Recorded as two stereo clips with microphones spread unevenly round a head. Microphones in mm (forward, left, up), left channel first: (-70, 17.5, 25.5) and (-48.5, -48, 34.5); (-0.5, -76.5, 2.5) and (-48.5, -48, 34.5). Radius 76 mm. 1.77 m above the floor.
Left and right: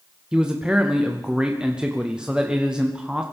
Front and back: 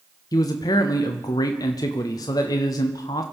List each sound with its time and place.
0.3 s a man speaking: 10° left, 0.6 m